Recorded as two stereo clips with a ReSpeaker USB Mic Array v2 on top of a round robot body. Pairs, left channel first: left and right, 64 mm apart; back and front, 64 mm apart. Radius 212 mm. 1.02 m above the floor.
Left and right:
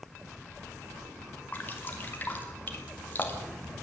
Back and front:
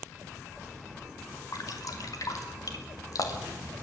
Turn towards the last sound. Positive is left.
turn(degrees=150)